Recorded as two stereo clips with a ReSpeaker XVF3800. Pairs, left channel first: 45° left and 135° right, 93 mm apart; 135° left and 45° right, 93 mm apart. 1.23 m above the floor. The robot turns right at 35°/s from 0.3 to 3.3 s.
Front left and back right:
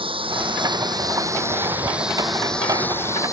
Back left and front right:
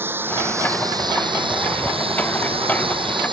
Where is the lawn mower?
110° right; by 3.3 s 10° right.